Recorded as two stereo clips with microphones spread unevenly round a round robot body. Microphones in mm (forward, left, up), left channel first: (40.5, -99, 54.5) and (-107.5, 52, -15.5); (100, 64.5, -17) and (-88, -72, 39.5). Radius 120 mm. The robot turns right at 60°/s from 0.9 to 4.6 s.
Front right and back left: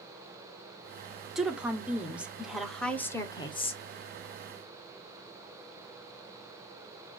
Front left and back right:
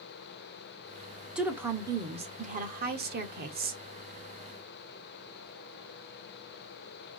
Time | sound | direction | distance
1.4 | a woman speaking | 100° left | 1.0 m